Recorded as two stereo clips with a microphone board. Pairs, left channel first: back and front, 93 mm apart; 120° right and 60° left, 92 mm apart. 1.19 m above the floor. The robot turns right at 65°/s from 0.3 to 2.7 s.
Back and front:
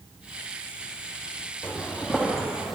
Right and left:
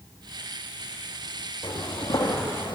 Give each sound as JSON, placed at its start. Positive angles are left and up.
{"t": 1.6, "sound": "footsteps", "azimuth_deg": -110, "distance_m": 2.0}